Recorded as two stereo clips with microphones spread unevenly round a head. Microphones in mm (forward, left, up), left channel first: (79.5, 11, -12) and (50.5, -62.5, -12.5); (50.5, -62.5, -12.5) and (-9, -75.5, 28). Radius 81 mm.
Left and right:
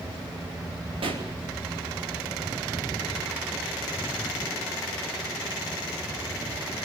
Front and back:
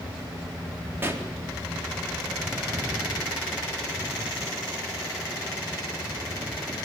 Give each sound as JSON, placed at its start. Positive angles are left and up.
{"t": 1.0, "sound": "a pop", "azimuth_deg": -115, "distance_m": 4.0}